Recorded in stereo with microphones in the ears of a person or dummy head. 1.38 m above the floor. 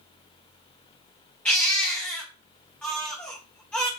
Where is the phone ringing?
No phone ringing in this recording.